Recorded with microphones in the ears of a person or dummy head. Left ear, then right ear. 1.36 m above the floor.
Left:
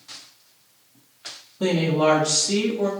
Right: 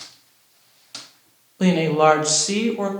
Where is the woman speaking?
50° right (ahead or behind), 0.7 m.